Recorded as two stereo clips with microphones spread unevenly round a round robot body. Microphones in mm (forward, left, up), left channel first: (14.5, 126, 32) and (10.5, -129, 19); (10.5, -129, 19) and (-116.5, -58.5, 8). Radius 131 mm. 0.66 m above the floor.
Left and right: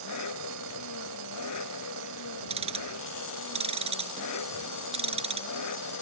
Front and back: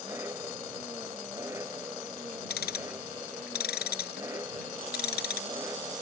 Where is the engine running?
70° left.